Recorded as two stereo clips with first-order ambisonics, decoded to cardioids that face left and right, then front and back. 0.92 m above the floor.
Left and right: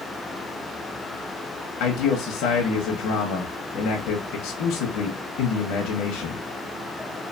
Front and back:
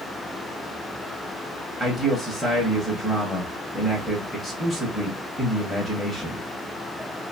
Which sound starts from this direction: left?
A man speaking, at 1.8 s.